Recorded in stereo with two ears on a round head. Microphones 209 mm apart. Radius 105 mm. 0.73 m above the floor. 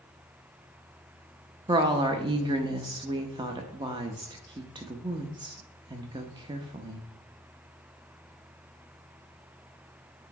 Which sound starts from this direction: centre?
A woman speaking, at 1.7 s.